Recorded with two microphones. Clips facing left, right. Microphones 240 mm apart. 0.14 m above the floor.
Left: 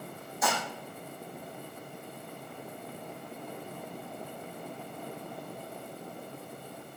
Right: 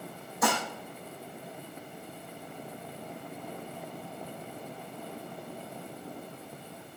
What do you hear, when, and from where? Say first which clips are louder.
0.4 s dishes clattering: right 3 dB; 60° right (ahead or behind), 4.5 m